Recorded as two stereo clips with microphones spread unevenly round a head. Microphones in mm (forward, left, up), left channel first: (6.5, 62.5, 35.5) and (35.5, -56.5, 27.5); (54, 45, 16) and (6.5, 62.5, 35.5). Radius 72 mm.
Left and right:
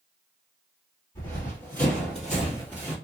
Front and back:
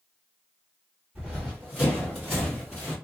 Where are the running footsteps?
140° left, 1.7 m; by 3.0 s 145° right, 1.7 m.